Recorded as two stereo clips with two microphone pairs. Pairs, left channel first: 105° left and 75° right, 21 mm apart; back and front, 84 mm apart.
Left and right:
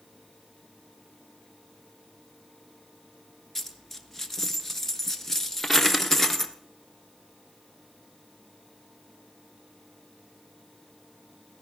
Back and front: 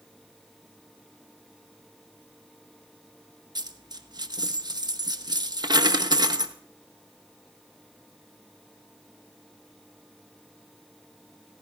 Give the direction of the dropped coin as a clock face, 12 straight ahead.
11 o'clock.